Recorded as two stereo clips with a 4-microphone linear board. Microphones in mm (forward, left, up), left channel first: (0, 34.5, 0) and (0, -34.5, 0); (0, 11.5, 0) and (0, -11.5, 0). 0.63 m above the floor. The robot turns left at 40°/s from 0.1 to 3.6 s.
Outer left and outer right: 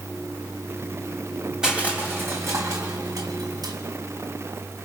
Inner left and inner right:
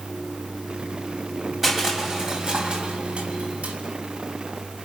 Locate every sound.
1.6 s crushing: 10° right (ahead or behind), 3.5 m; by 3.8 s 80° right, 3.5 m